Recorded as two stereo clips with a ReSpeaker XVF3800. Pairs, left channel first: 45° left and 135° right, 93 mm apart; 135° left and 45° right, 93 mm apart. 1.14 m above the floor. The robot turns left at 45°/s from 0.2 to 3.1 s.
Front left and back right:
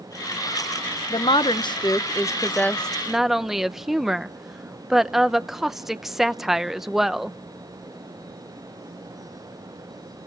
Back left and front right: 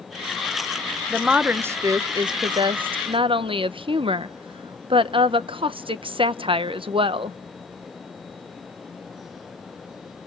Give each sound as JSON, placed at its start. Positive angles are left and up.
{"t": 1.1, "sound": "a woman speaking", "azimuth_deg": 40, "distance_m": 0.7}